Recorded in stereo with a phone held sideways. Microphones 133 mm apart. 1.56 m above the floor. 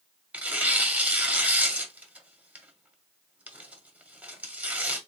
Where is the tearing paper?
10° right (ahead or behind), 1.0 m.